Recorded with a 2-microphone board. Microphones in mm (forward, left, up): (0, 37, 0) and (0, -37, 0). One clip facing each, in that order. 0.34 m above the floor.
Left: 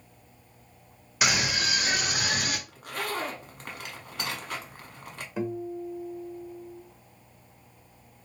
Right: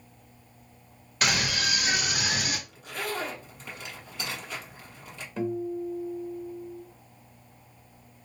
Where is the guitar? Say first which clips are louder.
Right 2 dB; 10° left (ahead or behind), 0.6 m.